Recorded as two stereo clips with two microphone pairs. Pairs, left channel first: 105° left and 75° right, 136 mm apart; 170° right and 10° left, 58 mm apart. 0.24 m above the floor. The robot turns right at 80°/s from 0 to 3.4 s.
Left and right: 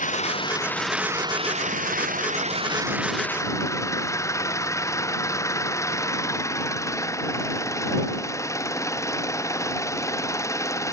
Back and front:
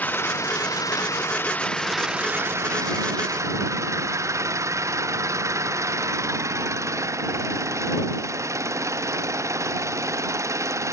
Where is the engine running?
125° left; by 10.9 s 40° left.